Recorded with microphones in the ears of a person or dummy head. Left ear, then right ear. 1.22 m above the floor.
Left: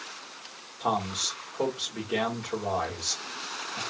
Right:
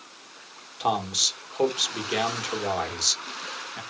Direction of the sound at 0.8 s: 80° right.